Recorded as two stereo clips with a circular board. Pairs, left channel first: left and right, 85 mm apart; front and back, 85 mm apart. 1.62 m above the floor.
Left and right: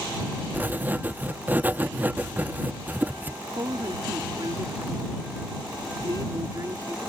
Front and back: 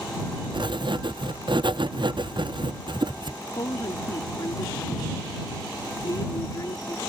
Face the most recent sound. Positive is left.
turn(degrees=-45)